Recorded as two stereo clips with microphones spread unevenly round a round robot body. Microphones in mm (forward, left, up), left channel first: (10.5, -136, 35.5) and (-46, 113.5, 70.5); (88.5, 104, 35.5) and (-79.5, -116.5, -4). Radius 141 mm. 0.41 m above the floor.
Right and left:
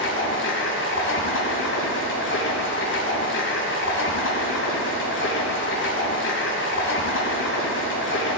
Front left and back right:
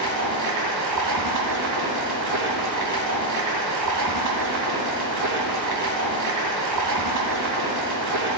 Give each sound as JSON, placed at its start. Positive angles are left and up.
{"t": 0.0, "sound": "running water", "azimuth_deg": -115, "distance_m": 2.5}